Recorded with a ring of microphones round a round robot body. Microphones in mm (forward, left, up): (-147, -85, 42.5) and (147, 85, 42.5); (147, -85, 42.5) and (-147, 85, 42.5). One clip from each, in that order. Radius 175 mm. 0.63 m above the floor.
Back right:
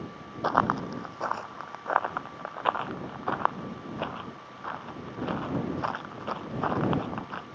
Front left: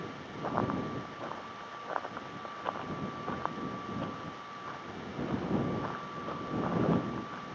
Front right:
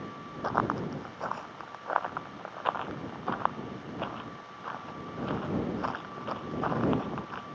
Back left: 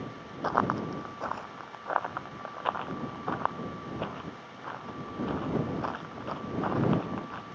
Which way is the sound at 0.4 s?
125° right.